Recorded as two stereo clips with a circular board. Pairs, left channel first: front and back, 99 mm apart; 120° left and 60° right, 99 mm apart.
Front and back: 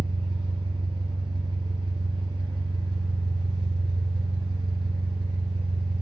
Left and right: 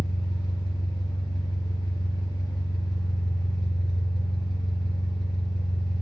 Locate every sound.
0.0 s an engine running: 155° left, 0.9 m